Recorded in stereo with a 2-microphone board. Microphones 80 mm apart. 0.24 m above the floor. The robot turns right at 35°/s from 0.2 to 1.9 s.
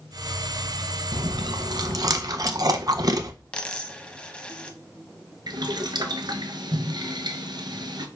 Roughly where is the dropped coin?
Centre.